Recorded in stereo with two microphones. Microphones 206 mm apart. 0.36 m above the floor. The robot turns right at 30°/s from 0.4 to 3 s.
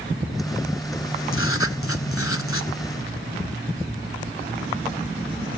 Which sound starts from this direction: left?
Writing, at 1.3 s.